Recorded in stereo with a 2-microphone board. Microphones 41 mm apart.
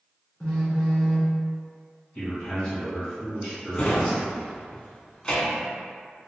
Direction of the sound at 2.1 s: 25° left (ahead or behind).